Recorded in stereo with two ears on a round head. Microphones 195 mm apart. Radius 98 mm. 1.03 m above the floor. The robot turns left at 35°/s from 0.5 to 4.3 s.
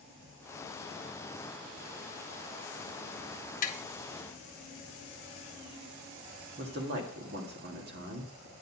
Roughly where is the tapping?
Left.